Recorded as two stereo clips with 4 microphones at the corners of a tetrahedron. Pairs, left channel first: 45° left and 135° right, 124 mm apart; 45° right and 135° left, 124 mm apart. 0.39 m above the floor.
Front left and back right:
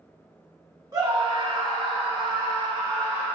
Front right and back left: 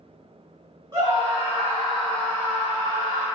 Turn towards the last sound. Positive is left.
turn(degrees=-75)